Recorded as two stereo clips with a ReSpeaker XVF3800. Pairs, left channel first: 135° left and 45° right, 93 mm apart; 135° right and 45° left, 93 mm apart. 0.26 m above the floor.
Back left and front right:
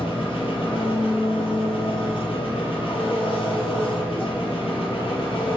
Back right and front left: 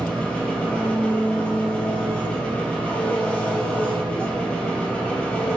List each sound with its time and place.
0.0 s an engine running: 150° left, 2.5 m